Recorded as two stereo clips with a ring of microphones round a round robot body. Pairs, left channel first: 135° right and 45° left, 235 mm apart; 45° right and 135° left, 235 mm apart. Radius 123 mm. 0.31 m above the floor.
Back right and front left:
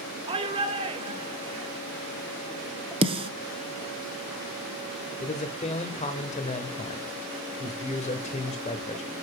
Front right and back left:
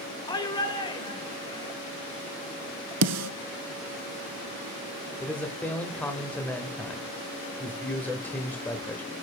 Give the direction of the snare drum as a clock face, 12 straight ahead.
8 o'clock.